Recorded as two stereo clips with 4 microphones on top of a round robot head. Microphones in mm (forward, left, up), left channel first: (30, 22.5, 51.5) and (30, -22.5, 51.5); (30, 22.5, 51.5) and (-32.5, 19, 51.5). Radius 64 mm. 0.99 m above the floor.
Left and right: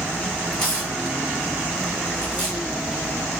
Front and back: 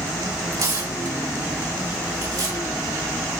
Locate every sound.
0.5 s tearing paper: 165° left, 4.5 m